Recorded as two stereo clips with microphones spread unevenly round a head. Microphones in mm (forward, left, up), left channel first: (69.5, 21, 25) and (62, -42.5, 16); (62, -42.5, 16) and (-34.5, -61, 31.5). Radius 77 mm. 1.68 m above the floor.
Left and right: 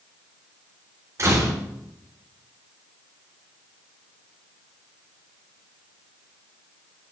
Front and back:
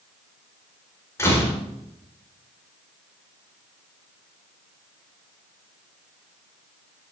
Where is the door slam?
55° right, 5 m.